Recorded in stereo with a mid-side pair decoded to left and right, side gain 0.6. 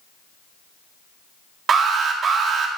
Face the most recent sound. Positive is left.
turn(degrees=-40)